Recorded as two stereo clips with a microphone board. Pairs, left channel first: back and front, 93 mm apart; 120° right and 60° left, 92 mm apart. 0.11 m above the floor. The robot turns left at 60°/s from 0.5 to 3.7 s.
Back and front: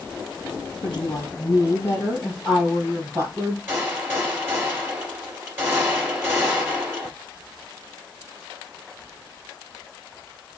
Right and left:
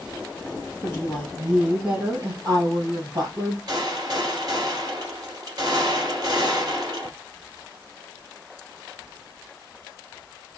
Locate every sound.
0.8 s a woman speaking: 170° right, 2.5 m; by 3.6 s 25° left, 2.5 m
3.7 s a gunshot: 60° left, 2 m